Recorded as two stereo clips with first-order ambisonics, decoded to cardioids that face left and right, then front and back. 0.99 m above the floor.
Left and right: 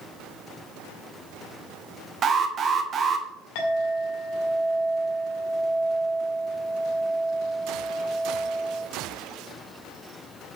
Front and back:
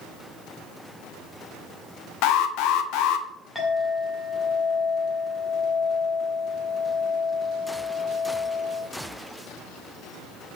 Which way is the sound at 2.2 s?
25° right.